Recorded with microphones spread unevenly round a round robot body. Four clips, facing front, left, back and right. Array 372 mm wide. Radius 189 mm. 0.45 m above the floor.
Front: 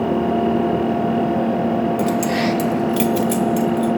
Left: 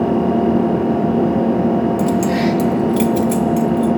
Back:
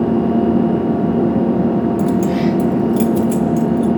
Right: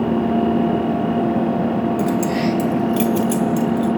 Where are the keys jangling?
25° left, 1.4 m; by 3.9 s 10° right, 2.5 m.